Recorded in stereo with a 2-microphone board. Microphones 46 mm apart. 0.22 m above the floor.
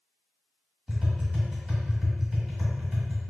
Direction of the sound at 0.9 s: Centre (ahead or behind).